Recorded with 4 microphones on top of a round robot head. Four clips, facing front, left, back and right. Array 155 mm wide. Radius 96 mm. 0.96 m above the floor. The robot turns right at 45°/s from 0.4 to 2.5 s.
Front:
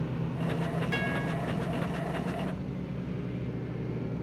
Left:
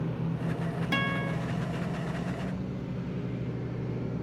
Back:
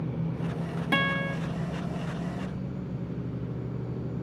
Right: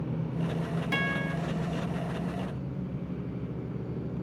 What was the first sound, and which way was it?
A guitar, 160° left.